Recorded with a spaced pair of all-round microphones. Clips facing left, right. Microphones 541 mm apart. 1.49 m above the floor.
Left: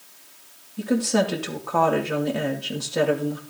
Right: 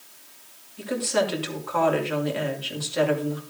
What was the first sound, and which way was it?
A woman speaking, 65° left (ahead or behind).